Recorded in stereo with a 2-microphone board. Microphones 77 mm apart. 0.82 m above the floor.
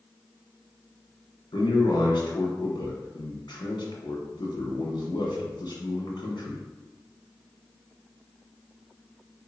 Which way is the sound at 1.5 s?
70° left (ahead or behind).